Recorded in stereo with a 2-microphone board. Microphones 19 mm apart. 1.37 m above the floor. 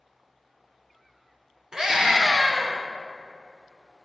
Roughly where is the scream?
Right.